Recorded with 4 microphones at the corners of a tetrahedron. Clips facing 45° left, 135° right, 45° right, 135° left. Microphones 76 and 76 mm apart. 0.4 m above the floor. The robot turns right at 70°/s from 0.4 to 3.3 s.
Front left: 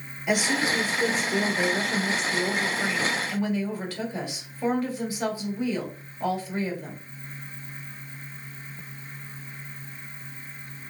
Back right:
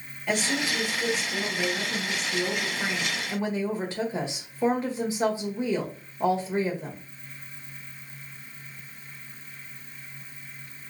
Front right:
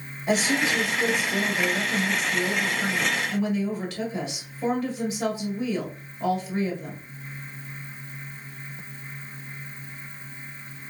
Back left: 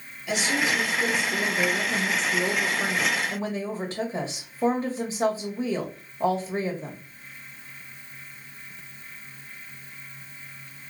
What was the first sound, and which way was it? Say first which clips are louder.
A woman speaking: front left 3 dB, front right 2 dB; 30° right.